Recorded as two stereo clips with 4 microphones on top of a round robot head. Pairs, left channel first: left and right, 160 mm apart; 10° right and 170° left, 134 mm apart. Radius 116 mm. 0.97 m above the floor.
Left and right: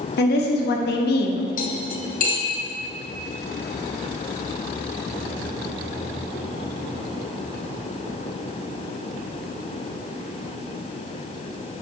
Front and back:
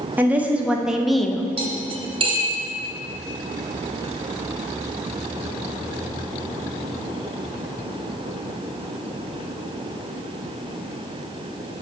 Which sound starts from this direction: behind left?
Cutlery clinking, at 1.6 s.